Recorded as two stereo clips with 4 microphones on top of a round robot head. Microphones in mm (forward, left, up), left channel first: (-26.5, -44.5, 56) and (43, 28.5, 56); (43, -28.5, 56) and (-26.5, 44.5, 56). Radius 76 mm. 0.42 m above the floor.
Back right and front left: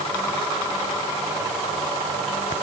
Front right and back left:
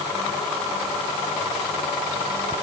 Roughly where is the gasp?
I don't hear a gasp.